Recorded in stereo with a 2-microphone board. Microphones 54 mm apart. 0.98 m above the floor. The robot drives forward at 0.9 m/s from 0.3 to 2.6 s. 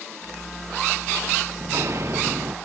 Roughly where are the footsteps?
Right.